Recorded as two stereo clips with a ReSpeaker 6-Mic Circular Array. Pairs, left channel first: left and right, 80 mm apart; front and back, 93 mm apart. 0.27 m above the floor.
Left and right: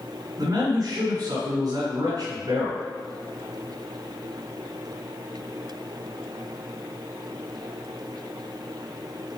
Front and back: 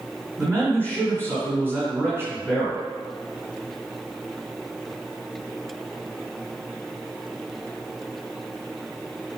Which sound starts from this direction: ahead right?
A man speaking, at 0.4 s.